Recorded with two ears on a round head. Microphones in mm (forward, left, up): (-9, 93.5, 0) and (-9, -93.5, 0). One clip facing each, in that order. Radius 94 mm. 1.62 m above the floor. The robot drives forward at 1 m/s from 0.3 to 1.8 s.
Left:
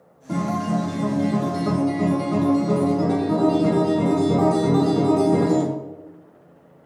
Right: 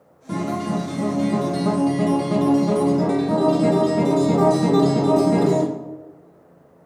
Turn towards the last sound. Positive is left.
turn(degrees=-70)  # may be behind; listen again after turning